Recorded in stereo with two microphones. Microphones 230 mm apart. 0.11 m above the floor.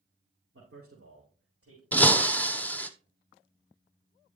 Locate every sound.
0.5 s a man speaking: 65° right (ahead or behind), 5.5 m; by 1.8 s 70° right (ahead or behind), 6 m
1.9 s breaking glass: 5° left (ahead or behind), 0.9 m